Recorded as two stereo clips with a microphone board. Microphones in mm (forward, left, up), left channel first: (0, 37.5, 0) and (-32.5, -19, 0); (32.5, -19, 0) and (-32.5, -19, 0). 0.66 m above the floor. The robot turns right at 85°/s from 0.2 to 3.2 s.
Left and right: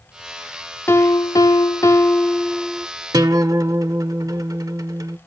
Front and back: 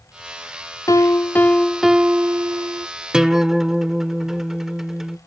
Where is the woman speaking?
I don't hear a woman speaking.